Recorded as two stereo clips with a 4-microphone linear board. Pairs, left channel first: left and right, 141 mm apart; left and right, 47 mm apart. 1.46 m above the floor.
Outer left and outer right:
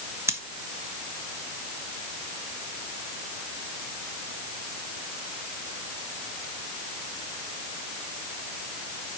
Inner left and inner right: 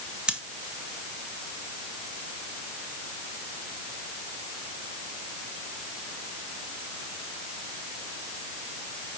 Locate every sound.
0.3 s scissors: 20° right (ahead or behind), 1.2 m